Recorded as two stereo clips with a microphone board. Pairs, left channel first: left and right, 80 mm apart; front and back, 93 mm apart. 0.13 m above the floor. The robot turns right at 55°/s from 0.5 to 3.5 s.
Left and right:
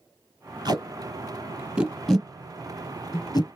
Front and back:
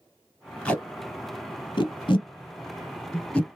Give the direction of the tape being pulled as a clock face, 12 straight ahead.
3 o'clock.